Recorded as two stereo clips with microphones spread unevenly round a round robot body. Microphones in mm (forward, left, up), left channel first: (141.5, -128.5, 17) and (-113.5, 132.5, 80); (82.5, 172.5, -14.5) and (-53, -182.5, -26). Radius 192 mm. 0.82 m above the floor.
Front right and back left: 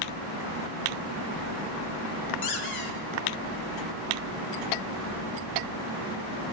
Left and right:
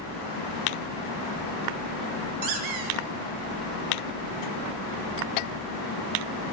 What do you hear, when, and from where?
2.4 s a squeak: 80° right, 3 m